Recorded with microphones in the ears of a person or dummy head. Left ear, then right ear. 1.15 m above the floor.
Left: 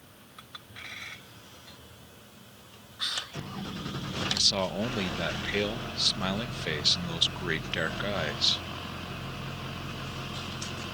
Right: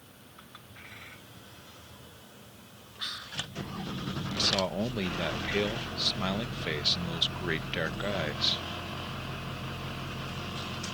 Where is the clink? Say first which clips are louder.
Left 6 dB; 30° left (ahead or behind).